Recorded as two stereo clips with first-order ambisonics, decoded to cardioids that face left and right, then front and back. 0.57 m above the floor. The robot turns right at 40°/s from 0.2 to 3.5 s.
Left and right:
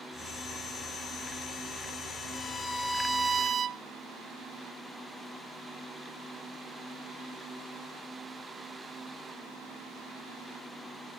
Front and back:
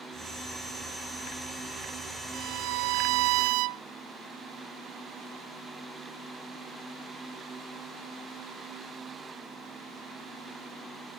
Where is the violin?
150° left, 0.7 m; by 3.8 s 160° right, 0.7 m.